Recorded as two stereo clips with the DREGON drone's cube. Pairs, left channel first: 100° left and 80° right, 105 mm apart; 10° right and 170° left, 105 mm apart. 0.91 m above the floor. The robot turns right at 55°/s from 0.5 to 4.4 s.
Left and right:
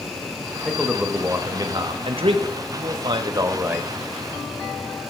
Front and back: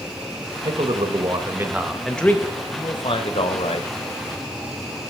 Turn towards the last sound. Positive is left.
turn(degrees=30)